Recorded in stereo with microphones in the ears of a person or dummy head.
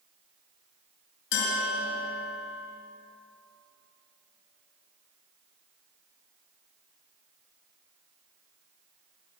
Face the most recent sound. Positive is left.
turn(degrees=75)  # may be behind; listen again after turning